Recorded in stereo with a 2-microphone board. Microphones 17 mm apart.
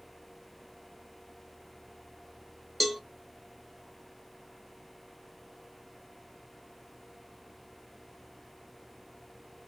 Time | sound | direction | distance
2.8 | a cowbell | 5° right (ahead or behind) | 0.7 m